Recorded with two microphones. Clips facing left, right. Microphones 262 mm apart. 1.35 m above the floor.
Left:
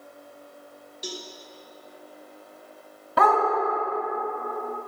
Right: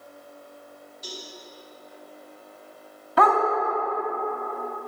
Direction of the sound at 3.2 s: 55° left (ahead or behind).